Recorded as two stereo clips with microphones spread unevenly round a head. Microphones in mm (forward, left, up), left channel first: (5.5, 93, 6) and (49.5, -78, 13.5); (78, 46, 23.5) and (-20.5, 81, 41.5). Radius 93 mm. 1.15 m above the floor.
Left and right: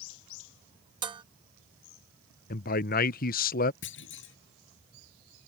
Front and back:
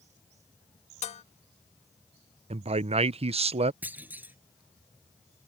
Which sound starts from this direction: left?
A clunk, at 3.8 s.